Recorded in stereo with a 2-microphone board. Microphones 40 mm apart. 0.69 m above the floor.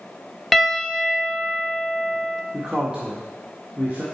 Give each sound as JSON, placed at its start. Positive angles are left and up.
{"t": 0.5, "sound": "a piano", "side_deg": 0, "distance_m": 0.7}
{"t": 2.5, "sound": "a man speaking", "side_deg": -25, "distance_m": 1.5}